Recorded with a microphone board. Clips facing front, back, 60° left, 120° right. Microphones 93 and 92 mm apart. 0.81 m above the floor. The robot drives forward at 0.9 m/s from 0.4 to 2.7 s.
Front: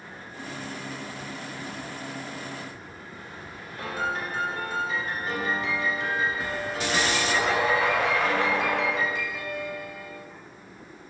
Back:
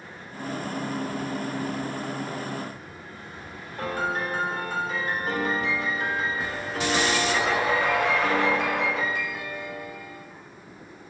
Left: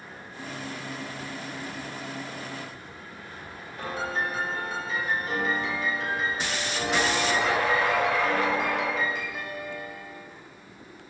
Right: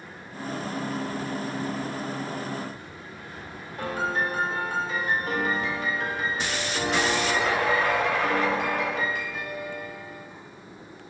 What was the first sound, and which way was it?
A piano, 150° right.